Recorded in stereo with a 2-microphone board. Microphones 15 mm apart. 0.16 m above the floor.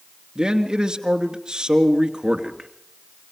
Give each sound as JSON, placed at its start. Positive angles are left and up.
{"t": 0.3, "sound": "a man speaking", "side_deg": -45, "distance_m": 2.5}